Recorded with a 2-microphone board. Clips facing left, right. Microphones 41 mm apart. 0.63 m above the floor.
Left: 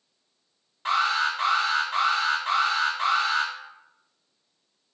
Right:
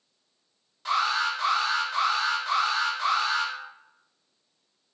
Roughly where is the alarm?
Left.